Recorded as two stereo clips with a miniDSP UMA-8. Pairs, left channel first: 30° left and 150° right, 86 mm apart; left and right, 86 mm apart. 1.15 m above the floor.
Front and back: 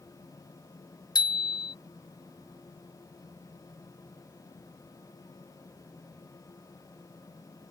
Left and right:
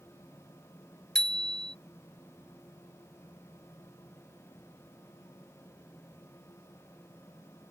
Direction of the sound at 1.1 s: 5° left.